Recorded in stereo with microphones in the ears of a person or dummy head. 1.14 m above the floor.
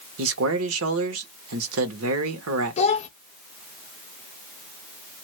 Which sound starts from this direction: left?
A child speaking, at 2.8 s.